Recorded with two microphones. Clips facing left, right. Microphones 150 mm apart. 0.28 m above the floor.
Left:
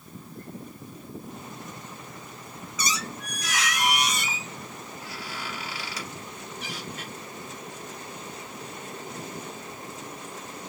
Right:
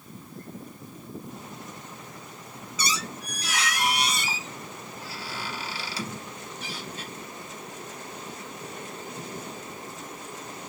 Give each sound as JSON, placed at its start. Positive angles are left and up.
{"t": 2.8, "sound": "a squeak", "side_deg": -30, "distance_m": 0.8}